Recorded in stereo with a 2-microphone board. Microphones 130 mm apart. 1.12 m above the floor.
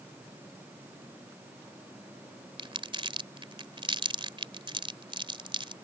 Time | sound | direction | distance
2.6 | crumpling | 45° right (ahead or behind) | ?